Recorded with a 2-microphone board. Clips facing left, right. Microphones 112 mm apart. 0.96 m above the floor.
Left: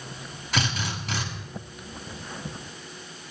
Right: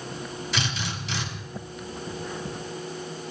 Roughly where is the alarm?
I don't hear an alarm.